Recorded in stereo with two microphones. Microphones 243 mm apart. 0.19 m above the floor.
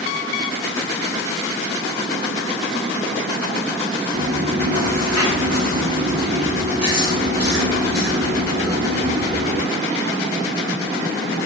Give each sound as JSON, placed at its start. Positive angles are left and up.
{"t": 4.1, "sound": "chewing", "side_deg": -75, "distance_m": 3.0}